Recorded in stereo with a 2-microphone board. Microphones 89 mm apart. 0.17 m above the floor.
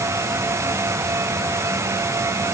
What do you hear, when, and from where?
Only background noise.